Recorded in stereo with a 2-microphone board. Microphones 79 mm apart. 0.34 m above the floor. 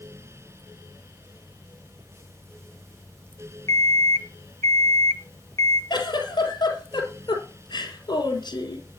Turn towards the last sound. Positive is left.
turn(degrees=65)  # may be behind; listen again after turning